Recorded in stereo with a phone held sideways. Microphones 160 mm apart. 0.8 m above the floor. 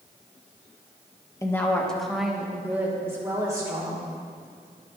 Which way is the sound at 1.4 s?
20° left (ahead or behind).